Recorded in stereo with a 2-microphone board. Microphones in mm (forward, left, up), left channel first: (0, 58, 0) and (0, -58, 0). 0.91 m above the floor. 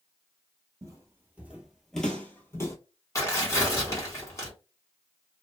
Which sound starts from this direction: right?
Footsteps, at 0.8 s.